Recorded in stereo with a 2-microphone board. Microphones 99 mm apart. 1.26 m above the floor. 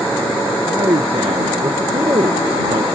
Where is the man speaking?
70° right (ahead or behind).